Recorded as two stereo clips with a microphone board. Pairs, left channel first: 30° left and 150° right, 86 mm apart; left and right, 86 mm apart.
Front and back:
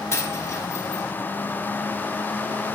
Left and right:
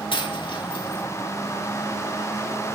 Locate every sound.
0.1 s a dropped coin: 85° left, 4.5 m